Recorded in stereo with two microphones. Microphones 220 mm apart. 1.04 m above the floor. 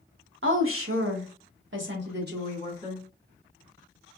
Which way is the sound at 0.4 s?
65° right (ahead or behind).